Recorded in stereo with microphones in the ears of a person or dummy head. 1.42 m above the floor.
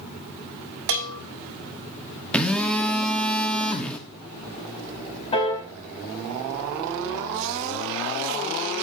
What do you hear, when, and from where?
0.9 s a bell: 60° right (ahead or behind), 1.6 m
2.3 s a phone buzzing: 10° left (ahead or behind), 1.3 m
5.3 s a piano: 35° left (ahead or behind), 4.5 m